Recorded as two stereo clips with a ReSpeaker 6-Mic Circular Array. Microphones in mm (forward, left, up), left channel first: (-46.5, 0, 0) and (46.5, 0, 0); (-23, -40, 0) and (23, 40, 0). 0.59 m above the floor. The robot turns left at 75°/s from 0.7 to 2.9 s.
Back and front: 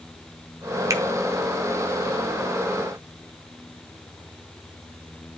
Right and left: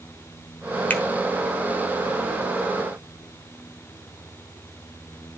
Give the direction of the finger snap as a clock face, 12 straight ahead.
2 o'clock.